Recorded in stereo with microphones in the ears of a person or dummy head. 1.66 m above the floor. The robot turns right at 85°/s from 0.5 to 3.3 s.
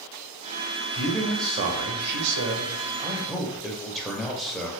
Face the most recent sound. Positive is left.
turn(degrees=0)